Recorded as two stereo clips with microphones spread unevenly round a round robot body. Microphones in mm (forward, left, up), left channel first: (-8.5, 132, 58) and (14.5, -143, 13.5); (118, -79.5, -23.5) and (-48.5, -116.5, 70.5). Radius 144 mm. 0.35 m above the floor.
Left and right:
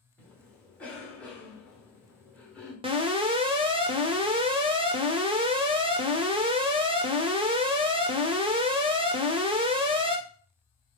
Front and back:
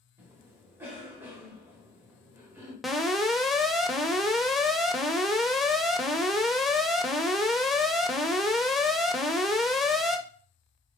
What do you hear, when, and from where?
0.2 s a cough: 10° right, 1.3 m
2.8 s an alarm: 35° right, 0.8 m